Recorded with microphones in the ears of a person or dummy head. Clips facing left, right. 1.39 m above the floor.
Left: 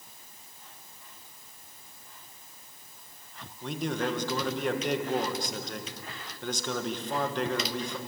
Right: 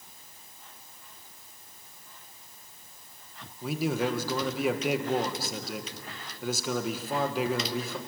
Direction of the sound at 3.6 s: 5° right (ahead or behind).